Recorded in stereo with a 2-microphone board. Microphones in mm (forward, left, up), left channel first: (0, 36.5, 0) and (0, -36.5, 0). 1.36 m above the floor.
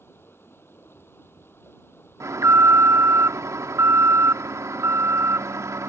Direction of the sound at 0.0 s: 35° left (ahead or behind).